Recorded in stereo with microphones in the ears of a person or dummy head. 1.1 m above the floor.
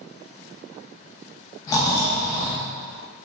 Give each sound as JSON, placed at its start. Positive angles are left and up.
{"t": 1.7, "sound": "snoring", "side_deg": 15, "distance_m": 0.5}